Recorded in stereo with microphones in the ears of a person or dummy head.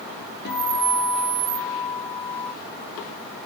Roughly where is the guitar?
Left.